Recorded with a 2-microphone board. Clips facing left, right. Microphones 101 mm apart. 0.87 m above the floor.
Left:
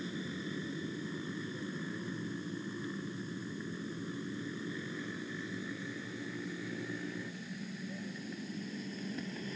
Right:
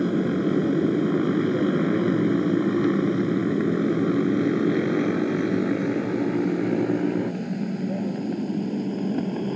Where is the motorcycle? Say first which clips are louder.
Right 19 dB; 70° right (ahead or behind); by 9.6 s 55° right (ahead or behind).